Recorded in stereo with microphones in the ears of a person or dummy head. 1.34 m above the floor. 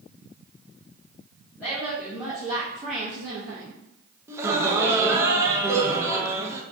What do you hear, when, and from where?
1.6 s a woman speaking: 5° left (ahead or behind), 1.0 m; by 3.8 s 75° right (ahead or behind), 0.7 m
4.3 s laughter: 20° right (ahead or behind), 0.5 m